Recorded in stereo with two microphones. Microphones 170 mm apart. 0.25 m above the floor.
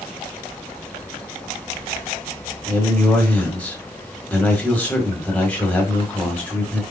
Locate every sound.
2.7 s a man speaking: 10° left (ahead or behind), 1.4 m